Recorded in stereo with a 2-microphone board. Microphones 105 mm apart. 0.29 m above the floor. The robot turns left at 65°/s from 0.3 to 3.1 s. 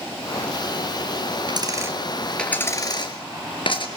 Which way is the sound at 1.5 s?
50° right (ahead or behind).